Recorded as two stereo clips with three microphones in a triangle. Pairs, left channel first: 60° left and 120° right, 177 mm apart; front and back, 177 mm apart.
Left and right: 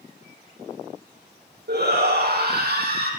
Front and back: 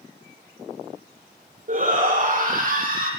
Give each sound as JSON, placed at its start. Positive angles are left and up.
{"t": 1.7, "sound": "a shout", "azimuth_deg": -140, "distance_m": 5.5}